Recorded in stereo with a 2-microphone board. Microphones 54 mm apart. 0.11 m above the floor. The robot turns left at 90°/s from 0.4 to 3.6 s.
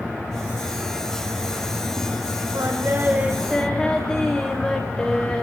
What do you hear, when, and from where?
2.5 s singing: 100° right, 6 m; by 5.4 s 165° left, 6 m